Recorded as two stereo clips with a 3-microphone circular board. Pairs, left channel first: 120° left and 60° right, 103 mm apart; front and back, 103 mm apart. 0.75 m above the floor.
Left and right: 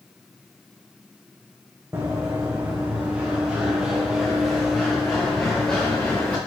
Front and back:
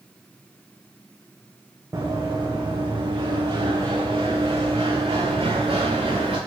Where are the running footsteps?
120° right, 2.5 m; by 6.4 s 165° right, 4 m.